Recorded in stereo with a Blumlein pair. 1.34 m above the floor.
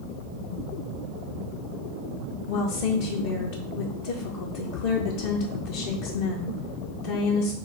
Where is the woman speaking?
50° left, 0.6 m.